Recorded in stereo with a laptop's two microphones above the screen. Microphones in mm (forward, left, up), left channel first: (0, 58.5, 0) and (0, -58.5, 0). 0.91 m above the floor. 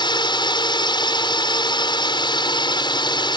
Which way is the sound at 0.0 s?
40° left (ahead or behind).